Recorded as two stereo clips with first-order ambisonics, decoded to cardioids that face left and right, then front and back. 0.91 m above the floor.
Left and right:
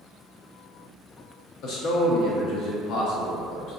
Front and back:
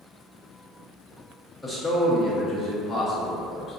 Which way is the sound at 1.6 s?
85° left.